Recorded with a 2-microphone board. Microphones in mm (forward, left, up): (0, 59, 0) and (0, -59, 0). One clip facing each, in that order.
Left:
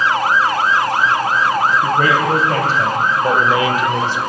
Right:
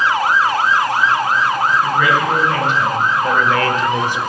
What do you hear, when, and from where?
1.8 s a man speaking: 45° left (ahead or behind), 4 m; by 4.2 s 25° right (ahead or behind), 1.0 m